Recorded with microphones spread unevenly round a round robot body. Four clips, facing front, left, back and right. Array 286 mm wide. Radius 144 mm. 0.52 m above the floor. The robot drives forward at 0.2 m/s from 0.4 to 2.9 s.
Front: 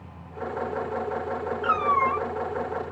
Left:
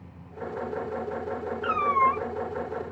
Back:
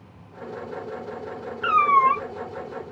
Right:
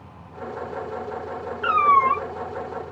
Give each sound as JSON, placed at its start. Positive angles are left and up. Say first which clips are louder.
{"t": 1.6, "sound": "a cat meowing", "louder": "right 6 dB, back 6 dB", "azimuth_deg": -170, "distance_m": 1.1}